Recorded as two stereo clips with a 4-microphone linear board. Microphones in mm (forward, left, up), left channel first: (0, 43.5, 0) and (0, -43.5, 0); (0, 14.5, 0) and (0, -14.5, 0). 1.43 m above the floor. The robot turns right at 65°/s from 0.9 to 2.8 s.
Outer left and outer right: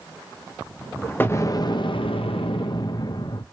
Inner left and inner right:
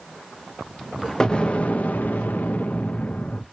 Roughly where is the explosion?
Ahead left.